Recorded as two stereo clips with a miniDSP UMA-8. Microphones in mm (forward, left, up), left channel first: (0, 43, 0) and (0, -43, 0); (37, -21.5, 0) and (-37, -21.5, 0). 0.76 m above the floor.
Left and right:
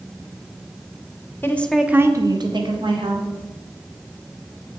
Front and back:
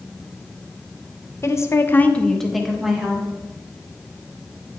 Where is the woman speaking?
35° left, 0.6 m; by 3.3 s 100° right, 1.4 m.